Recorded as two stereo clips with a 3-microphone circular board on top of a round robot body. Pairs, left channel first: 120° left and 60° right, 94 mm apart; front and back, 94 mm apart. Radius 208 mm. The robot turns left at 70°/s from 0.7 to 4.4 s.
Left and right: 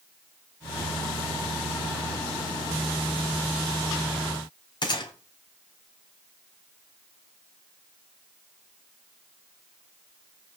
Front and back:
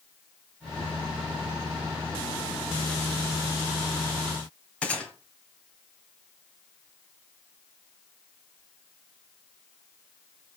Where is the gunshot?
80° left, 1.8 m.